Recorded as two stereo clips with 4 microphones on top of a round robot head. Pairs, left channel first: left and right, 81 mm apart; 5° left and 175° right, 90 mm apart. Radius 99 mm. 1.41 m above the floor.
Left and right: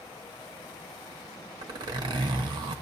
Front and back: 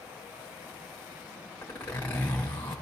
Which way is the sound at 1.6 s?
70° right.